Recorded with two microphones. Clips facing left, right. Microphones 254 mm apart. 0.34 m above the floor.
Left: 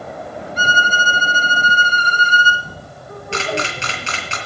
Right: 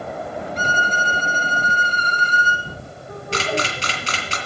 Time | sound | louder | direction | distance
0.6 | a violin | left 1 dB | 5° left (ahead or behind) | 1.4 m
3.3 | a camera shutter | left 1 dB | 40° right (ahead or behind) | 2.5 m